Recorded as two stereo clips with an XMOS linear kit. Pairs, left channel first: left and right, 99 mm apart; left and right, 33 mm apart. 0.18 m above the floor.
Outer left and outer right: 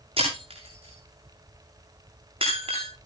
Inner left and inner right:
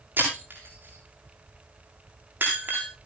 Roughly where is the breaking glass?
Right.